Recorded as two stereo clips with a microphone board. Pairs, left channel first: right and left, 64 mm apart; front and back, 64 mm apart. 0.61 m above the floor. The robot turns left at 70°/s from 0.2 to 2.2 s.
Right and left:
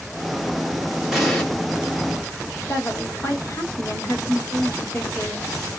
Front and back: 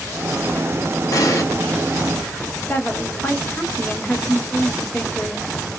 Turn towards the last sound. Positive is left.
turn(degrees=-55)